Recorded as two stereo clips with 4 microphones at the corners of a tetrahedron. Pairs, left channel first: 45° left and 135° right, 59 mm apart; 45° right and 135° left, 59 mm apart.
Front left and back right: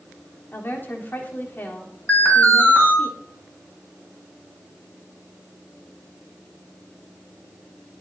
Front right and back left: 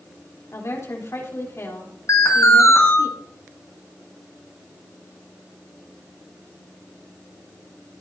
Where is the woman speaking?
10° right, 3.5 m.